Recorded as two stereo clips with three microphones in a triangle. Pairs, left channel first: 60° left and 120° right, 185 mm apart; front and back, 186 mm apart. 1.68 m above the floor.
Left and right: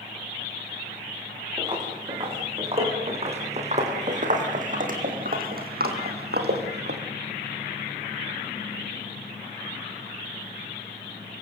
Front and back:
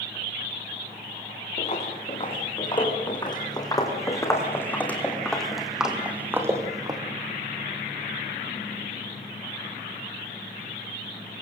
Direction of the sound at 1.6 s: 55° right.